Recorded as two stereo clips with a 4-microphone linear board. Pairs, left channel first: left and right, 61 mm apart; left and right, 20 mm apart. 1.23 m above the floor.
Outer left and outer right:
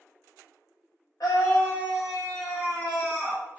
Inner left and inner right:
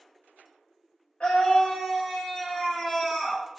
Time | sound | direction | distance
1.2 | a scream | 75° left (ahead or behind) | 0.7 m